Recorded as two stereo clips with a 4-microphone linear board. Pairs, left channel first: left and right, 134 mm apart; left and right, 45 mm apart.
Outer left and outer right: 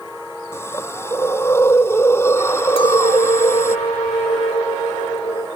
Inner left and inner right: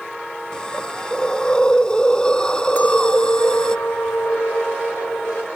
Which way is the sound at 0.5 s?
20° left (ahead or behind).